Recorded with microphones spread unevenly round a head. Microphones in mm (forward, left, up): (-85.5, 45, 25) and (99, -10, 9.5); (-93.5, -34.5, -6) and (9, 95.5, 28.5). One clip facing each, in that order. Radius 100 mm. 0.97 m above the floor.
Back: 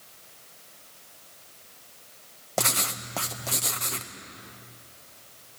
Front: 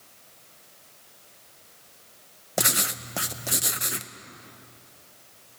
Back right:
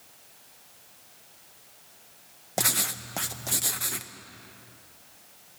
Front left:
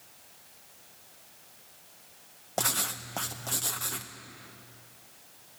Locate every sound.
2.6 s writing: 75° right, 0.6 m